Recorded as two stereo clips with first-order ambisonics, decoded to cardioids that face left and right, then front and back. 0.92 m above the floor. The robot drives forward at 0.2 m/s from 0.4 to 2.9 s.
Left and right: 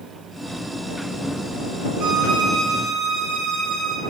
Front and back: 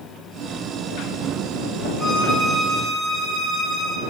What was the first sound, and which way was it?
A violin, 115° right.